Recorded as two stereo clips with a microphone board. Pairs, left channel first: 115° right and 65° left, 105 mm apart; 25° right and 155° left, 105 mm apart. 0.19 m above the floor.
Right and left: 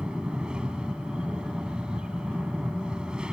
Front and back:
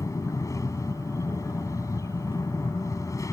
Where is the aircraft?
5° right.